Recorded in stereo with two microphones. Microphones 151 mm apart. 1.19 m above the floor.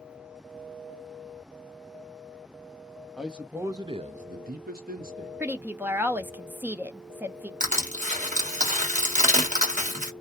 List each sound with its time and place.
3.2 s a man speaking: centre (ahead or behind), 0.8 m; by 5.3 s 65° right (ahead or behind), 0.9 m
5.4 s a woman speaking: 15° right (ahead or behind), 0.5 m
7.6 s crushing: 55° right (ahead or behind), 1.3 m